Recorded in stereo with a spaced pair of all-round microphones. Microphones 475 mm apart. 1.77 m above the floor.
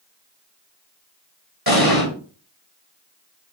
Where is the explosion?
50° right (ahead or behind), 8 m.